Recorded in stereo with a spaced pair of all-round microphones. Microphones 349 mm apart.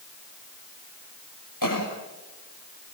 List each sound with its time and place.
1.6 s a cough: 65° left (ahead or behind), 6 m